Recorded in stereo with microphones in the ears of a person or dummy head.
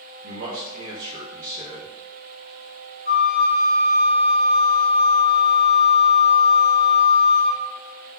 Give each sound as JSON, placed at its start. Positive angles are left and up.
{"t": 0.2, "sound": "a man speaking", "side_deg": -80, "distance_m": 1.4}
{"t": 3.0, "sound": "a flute", "side_deg": -65, "distance_m": 1.7}